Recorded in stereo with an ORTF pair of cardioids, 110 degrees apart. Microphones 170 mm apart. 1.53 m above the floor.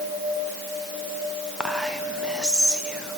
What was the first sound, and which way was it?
Whispering, 5° right.